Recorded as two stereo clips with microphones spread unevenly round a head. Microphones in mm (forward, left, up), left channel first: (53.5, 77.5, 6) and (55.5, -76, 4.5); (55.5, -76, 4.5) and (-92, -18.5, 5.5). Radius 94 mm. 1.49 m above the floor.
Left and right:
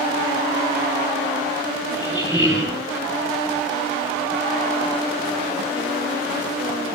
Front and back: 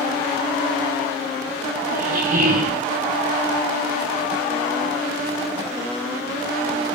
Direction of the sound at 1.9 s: 170° right.